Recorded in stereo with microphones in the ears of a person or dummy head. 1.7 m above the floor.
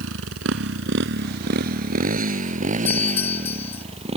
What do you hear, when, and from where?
0.0 s a motorcycle: 85° right; by 4.2 s 30° right (ahead or behind)
2.9 s a doorbell: 10° left (ahead or behind)